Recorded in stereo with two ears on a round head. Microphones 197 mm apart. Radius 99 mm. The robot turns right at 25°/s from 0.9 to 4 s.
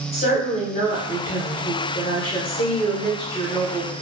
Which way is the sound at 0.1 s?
80° left.